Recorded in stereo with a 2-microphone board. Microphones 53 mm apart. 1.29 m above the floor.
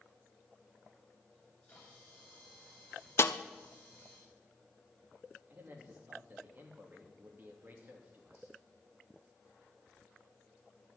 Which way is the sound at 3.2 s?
50° left (ahead or behind).